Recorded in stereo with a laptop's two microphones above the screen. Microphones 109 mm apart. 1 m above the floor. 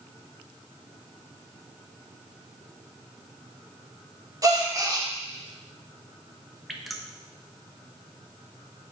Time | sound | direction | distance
4.4 | a gasp | 35° right (ahead or behind) | 0.9 m
6.7 | dripping | centre (ahead or behind) | 1.0 m